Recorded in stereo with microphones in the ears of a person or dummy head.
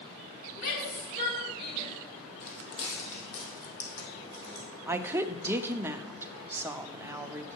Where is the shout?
50° left (ahead or behind), 3.5 m; by 1.9 s 30° left (ahead or behind), 2.5 m.